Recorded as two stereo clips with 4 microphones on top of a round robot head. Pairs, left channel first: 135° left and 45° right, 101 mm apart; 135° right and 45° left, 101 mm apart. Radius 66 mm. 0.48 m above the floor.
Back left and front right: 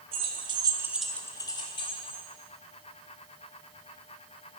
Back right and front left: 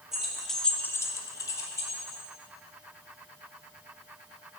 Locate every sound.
0.1 s keys jangling: 40° right, 1.2 m; by 2.2 s 165° left, 1.6 m